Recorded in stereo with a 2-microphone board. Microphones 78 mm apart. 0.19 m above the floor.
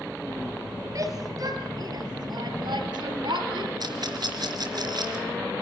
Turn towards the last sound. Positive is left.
turn(degrees=-60)  # may be behind; listen again after turning